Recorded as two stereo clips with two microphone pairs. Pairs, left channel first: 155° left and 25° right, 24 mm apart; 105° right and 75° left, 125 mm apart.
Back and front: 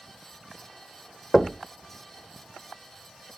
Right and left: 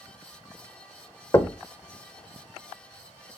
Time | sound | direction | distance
1.3 | knocking | 140° right | 0.7 m